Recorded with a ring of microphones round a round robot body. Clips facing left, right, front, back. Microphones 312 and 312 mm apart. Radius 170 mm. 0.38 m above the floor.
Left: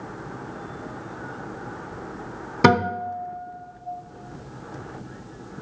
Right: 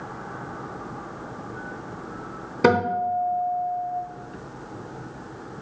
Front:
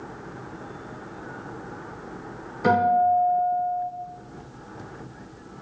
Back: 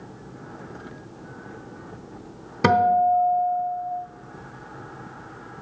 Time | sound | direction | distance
2.6 | a guitar | 150° left | 1.0 m